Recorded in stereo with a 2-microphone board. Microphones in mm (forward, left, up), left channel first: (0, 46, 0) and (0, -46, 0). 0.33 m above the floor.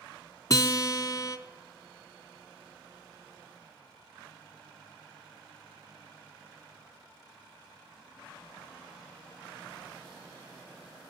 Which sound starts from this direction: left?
A guitar, at 0.5 s.